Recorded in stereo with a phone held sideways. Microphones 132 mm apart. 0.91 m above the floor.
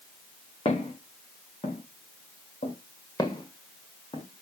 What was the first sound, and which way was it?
Footsteps, 45° left (ahead or behind).